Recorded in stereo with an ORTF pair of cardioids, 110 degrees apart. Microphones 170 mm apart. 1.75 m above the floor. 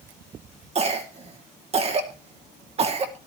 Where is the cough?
35° right, 2.5 m.